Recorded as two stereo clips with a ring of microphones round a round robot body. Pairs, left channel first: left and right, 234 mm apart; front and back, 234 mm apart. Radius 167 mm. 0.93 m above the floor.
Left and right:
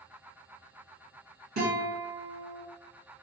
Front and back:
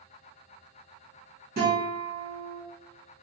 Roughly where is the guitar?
Behind right.